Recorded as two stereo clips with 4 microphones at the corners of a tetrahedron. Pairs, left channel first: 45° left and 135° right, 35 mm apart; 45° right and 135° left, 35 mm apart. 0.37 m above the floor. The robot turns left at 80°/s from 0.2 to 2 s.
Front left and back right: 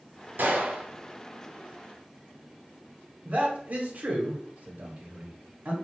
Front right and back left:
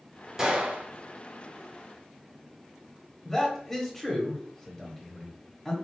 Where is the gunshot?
150° right, 0.9 m; by 0.9 s 175° left, 0.9 m.